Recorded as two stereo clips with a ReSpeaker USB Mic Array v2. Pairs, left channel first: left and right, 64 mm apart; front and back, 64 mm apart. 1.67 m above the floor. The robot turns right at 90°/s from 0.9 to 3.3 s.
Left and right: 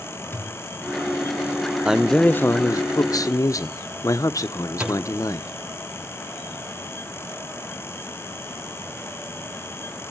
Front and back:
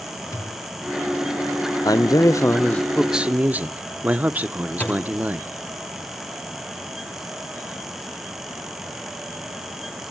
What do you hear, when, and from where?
0.3 s a thud: 35° left, 5 m
1.9 s a man speaking: 15° right, 1.0 m; by 5.5 s 115° left, 1.0 m
4.8 s a thud: 40° right, 1.2 m